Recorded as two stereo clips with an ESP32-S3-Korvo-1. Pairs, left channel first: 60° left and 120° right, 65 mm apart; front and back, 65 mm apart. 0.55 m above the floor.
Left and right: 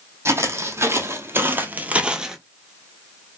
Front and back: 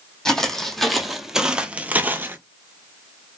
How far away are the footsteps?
About 1.0 m.